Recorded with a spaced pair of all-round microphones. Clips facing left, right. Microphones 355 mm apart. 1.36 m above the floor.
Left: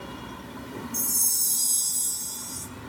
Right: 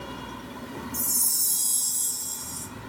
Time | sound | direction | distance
0.9 | a chime | 20° right (ahead or behind) | 1.2 m